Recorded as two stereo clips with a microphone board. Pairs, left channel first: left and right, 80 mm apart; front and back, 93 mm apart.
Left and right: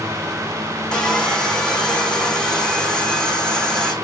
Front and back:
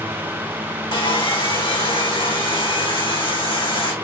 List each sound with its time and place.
0.9 s sawing: 10° left, 5 m